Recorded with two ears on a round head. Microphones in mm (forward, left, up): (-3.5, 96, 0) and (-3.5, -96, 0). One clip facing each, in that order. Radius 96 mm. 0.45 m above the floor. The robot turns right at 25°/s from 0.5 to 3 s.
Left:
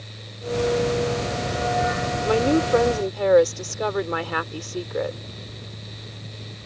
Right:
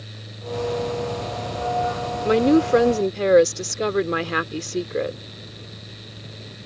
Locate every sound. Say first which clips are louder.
2.2 s a woman speaking: right 4 dB; 25° right (ahead or behind); by 5.2 s 30° right (ahead or behind)